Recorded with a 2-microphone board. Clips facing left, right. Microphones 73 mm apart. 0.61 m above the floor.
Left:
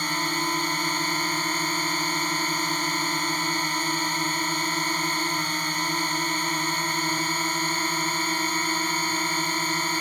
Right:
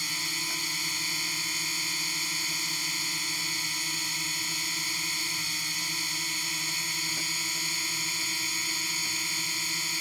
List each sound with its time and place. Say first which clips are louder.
0.0 s a drone: left 10 dB; 55° left (ahead or behind)